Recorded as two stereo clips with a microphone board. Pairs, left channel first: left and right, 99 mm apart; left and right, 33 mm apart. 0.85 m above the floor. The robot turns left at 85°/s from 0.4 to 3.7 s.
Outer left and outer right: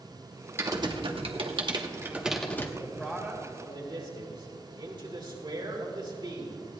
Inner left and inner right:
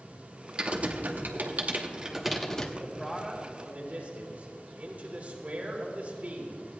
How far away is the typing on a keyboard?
About 1.1 m.